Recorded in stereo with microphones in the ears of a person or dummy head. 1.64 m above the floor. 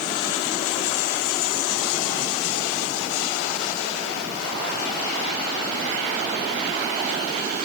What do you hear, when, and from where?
Only background noise.